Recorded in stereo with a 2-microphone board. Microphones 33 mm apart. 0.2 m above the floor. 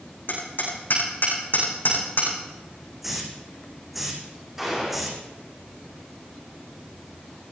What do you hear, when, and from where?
0.3 s hammering: 65° left (ahead or behind), 7 m
3.0 s a hiss: 5° right (ahead or behind), 3.5 m
4.6 s a gunshot: 10° right (ahead or behind), 8.5 m